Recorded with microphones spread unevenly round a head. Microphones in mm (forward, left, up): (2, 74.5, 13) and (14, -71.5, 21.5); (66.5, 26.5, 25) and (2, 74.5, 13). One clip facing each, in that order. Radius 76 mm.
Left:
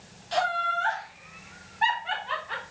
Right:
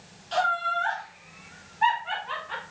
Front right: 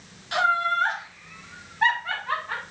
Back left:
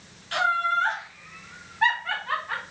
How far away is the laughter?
About 0.6 m.